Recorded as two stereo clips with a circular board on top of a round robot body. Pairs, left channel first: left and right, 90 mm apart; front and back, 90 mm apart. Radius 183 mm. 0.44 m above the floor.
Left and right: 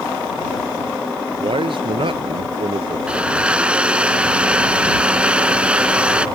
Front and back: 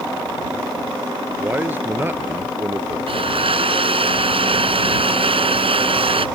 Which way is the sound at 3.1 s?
170° right.